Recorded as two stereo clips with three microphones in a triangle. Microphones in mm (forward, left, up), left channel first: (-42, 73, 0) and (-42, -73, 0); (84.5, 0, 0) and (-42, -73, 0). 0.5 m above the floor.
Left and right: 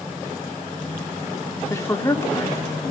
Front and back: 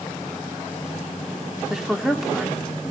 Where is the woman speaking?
125° left, 1.2 m.